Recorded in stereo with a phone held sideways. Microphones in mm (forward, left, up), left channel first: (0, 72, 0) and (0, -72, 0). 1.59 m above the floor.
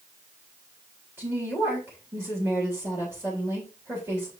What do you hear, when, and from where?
1.2 s a woman speaking: 15° right (ahead or behind), 3 m